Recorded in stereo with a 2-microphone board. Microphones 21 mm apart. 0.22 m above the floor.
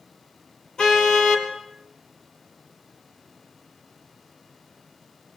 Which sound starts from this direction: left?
A car horn, at 0.8 s.